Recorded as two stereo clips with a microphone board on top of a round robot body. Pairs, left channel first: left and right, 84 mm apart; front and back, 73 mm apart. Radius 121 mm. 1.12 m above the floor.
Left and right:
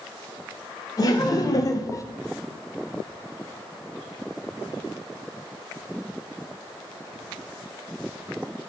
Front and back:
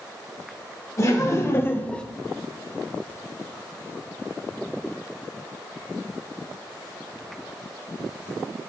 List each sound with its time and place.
1.0 s laughter: 45° left, 1.6 m; by 2.0 s 70° left, 0.7 m